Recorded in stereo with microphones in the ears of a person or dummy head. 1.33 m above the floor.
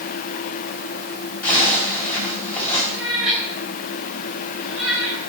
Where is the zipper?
10° left (ahead or behind), 4.5 m.